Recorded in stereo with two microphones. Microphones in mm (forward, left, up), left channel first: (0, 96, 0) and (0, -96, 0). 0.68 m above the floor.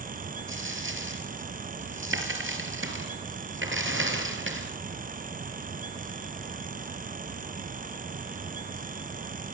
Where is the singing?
No singing in this recording.